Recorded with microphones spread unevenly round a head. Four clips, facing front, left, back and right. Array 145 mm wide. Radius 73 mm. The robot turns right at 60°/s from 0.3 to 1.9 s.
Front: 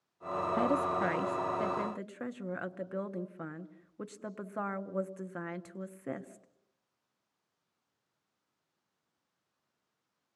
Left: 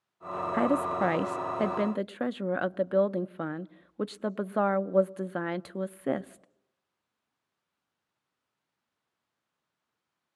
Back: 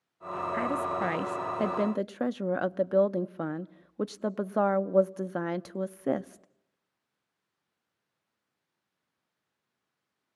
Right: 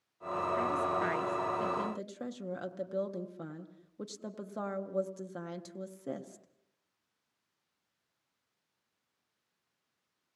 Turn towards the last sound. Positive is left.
turn(degrees=155)